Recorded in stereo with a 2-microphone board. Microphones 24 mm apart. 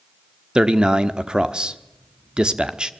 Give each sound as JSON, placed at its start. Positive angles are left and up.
{"t": 0.6, "sound": "a man speaking", "side_deg": -35, "distance_m": 1.2}